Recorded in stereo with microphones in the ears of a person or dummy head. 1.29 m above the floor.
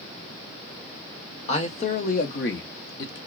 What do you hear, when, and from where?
1.5 s a man speaking: 35° left (ahead or behind), 1.1 m; by 3.2 s 60° left (ahead or behind), 0.8 m